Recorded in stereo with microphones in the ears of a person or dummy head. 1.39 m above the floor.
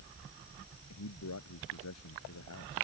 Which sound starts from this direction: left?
A man speaking, at 0.9 s.